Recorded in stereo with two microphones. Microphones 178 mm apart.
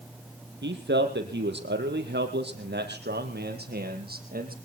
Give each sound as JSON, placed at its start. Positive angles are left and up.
{"t": 0.6, "sound": "a man speaking", "side_deg": -80, "distance_m": 4.5}